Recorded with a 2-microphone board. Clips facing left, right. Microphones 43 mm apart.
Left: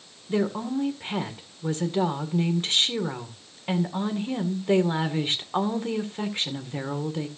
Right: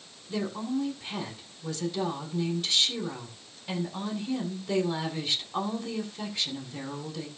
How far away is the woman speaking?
About 1.8 m.